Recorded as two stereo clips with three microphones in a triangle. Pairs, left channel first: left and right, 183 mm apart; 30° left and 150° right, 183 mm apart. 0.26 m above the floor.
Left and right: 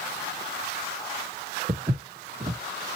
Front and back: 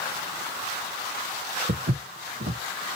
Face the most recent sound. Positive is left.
turn(degrees=-145)